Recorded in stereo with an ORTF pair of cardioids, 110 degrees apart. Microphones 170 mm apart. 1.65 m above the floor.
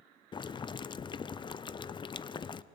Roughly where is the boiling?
Ahead left.